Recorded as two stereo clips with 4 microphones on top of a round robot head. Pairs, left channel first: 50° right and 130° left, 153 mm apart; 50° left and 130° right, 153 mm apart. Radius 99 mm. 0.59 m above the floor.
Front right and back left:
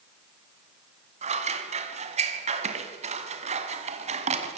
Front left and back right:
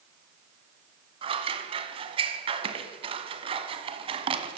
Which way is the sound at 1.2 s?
175° left.